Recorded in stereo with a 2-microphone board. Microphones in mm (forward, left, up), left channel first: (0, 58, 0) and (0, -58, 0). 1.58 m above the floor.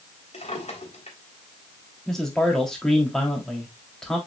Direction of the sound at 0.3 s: 75° left (ahead or behind).